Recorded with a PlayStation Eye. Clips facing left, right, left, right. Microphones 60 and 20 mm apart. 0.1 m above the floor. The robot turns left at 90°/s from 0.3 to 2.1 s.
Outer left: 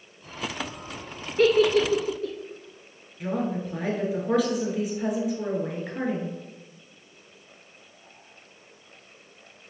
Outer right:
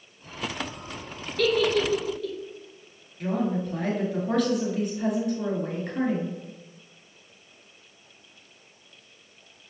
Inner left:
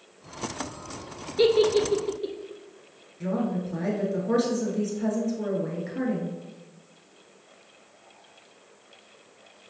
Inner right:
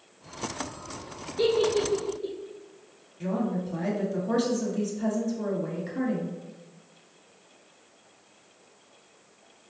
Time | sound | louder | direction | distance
1.4 | a giggle | outer left 4 dB, inner left 3 dB | 30° left (ahead or behind) | 0.6 m
3.2 | a woman speaking | outer right 1 dB, inner left 1 dB | 5° left (ahead or behind) | 1.2 m